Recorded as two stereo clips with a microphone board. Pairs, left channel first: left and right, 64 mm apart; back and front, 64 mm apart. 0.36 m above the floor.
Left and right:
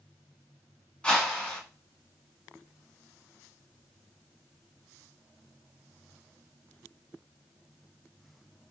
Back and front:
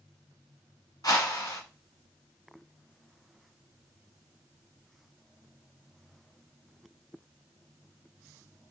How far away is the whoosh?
About 1.2 m.